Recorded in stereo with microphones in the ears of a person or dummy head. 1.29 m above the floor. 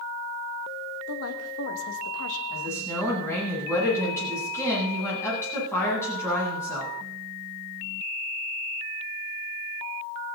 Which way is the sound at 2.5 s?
20° left (ahead or behind).